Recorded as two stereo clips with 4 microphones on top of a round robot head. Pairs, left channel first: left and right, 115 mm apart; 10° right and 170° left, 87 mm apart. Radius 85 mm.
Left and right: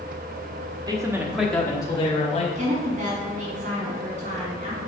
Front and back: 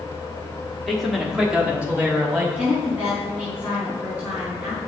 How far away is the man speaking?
About 1.6 m.